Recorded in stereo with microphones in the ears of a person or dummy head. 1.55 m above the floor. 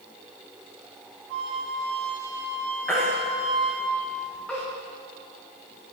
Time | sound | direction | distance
1.3 | a flute | 80° right | 2 m
2.9 | a baby crying | 5° left (ahead or behind) | 0.9 m